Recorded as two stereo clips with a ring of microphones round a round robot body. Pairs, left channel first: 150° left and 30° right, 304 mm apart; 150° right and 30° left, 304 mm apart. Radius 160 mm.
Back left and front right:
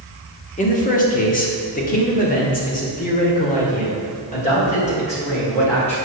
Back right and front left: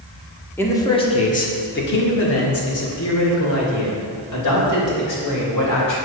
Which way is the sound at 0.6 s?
135° left.